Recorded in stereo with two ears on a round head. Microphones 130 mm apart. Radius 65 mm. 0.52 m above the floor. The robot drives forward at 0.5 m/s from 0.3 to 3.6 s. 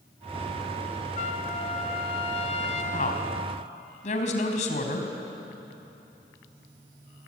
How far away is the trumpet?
About 2.5 m.